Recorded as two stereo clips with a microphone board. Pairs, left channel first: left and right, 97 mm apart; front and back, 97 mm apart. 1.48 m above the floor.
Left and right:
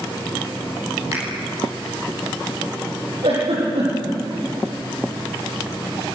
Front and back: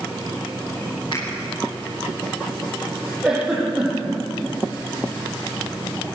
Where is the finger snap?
30° right, 10 m.